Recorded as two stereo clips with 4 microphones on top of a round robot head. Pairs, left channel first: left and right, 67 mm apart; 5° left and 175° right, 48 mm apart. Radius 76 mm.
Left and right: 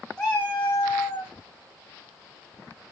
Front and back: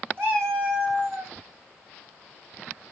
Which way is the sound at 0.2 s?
165° left.